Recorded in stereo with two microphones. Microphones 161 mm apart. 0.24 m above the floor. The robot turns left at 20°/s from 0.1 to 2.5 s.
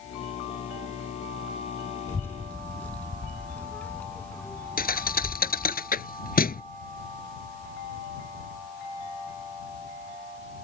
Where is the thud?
70° left (ahead or behind).